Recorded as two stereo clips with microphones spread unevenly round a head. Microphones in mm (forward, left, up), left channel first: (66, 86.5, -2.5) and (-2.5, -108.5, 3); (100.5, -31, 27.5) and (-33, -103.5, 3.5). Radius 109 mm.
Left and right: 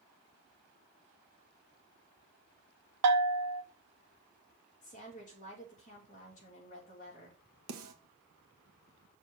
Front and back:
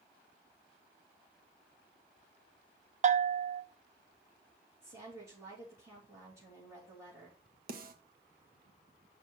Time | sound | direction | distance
3.0 | a bell | 105° right | 0.6 m
4.8 | a woman speaking | 130° left | 3 m
7.7 | a snare drum | 125° right | 1.1 m